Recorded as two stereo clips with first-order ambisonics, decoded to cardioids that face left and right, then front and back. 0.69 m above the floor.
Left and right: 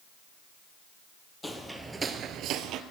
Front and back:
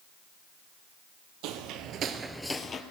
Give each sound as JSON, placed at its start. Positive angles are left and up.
{"t": 1.4, "sound": "footsteps", "azimuth_deg": 170, "distance_m": 1.3}